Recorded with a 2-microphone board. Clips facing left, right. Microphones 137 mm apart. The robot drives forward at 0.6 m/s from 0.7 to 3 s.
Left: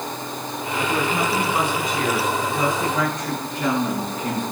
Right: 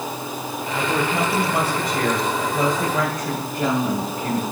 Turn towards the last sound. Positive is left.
turn(degrees=-55)  # may be behind; listen again after turning